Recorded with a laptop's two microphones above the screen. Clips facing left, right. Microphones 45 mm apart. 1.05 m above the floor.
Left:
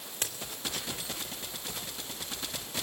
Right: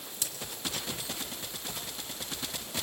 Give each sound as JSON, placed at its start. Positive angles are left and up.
{"t": 0.1, "sound": "a crack", "side_deg": 50, "distance_m": 2.5}